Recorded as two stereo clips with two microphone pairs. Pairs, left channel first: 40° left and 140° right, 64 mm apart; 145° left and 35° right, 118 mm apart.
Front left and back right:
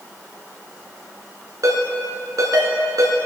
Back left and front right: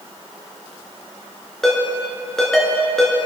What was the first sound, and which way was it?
A ringtone, 130° right.